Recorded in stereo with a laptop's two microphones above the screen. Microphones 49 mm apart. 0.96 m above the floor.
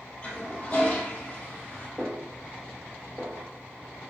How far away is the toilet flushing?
About 1.3 m.